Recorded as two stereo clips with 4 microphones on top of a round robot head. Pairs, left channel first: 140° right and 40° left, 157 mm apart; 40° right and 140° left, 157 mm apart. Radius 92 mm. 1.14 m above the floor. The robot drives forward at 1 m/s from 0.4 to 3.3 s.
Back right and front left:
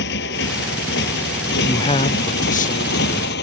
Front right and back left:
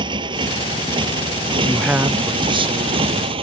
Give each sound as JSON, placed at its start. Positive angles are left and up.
{"t": 0.0, "sound": "a motorcycle", "azimuth_deg": -155}
{"t": 1.6, "sound": "a man speaking", "azimuth_deg": -105}